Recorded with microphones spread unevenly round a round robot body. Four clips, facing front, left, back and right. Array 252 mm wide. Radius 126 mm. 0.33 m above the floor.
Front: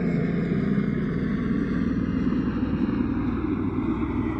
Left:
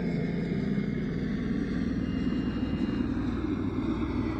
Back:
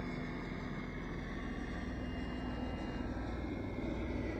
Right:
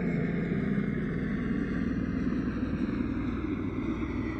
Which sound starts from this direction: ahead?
A helicopter, at 0.0 s.